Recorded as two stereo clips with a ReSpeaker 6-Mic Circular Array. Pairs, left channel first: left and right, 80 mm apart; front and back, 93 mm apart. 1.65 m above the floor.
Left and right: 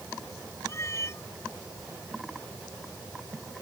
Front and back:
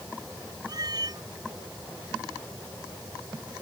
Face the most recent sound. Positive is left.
turn(degrees=145)